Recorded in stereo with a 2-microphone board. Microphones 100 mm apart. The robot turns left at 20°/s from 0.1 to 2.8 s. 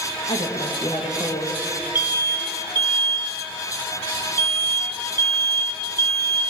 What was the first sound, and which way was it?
A woman speaking, 60° left (ahead or behind).